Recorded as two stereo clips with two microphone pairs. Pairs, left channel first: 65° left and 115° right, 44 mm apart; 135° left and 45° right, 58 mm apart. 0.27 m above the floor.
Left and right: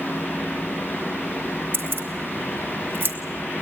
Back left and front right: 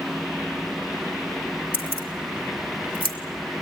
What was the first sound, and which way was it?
Keys jangling, 160° right.